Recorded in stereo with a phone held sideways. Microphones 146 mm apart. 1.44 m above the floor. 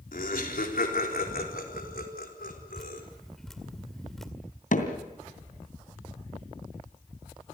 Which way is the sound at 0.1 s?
75° left (ahead or behind).